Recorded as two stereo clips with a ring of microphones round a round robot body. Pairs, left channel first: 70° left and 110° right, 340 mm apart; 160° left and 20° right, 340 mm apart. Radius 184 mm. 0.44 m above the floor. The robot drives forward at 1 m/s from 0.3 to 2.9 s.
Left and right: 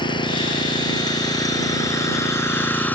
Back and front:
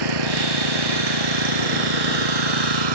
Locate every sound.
0.0 s an engine running: 10° right; by 3.0 s 20° right